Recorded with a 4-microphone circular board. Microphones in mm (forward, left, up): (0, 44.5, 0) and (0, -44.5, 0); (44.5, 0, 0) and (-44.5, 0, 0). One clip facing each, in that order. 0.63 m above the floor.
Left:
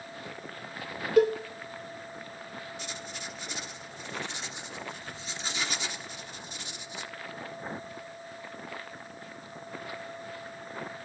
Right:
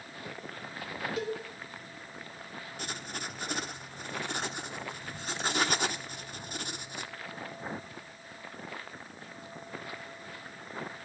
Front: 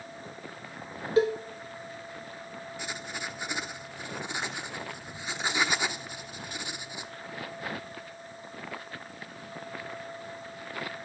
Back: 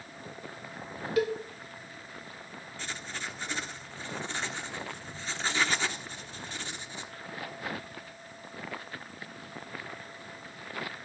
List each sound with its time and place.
1.2 s a cowbell: 60° left, 1.7 m
2.8 s writing: 75° right, 1.2 m